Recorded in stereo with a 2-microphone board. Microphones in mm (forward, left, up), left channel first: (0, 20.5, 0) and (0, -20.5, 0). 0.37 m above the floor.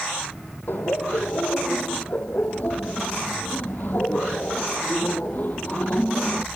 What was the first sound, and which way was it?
Laughter, 55° left (ahead or behind).